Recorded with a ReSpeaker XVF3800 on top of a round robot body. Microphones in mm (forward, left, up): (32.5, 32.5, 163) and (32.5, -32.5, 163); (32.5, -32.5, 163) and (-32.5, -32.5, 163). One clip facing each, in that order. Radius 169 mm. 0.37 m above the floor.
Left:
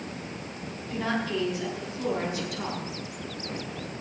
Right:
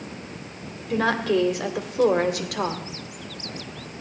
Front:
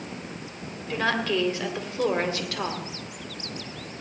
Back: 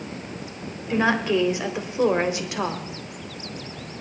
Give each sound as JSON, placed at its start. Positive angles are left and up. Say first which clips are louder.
{"t": 0.9, "sound": "a woman speaking", "louder": "right 8 dB, back 4 dB", "azimuth_deg": -110, "distance_m": 1.9}